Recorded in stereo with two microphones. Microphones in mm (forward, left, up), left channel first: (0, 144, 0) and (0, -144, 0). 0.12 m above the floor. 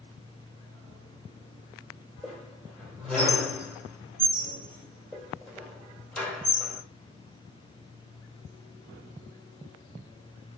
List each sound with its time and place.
2.2 s a squeak: 5° left (ahead or behind), 1.9 m